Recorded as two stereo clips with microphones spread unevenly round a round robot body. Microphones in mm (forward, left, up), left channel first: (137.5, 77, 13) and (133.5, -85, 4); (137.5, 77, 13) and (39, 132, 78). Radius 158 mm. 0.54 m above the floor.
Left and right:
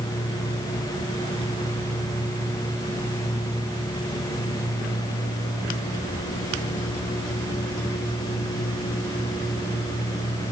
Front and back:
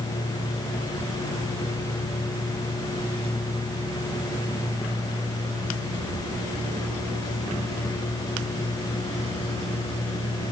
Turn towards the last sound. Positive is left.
No sound to turn to.